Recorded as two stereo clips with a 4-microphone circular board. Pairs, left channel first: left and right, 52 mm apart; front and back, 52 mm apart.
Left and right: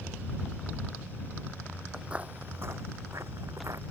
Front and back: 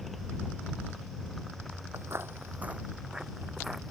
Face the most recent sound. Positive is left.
turn(degrees=-95)